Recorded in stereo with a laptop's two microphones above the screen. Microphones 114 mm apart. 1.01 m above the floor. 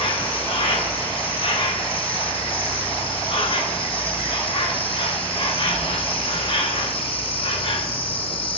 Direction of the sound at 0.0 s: 50° left (ahead or behind).